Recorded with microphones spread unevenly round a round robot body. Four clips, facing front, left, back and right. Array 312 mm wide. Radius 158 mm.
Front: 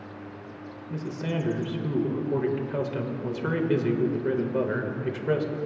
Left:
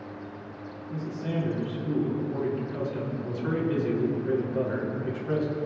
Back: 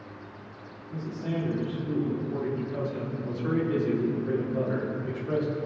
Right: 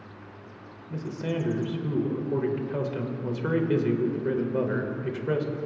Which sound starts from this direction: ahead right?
A man speaking, at 0.9 s.